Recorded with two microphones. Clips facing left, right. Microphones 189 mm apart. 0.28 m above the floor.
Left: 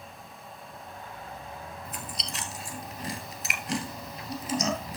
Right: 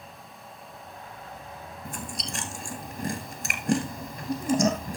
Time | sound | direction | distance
1.9 | chewing | 50° right (ahead or behind) | 1.5 m